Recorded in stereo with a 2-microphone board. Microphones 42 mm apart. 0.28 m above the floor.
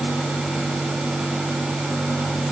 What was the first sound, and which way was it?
Only background noise.